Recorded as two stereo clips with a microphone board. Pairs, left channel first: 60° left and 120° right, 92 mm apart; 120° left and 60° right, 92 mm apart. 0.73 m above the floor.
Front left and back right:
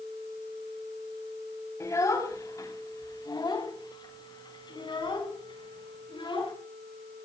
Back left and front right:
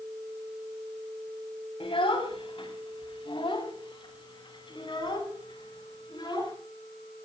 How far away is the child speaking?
About 3.5 m.